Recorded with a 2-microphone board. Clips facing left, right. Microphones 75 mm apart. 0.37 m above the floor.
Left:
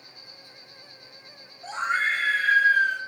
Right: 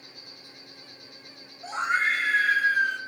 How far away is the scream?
About 2 m.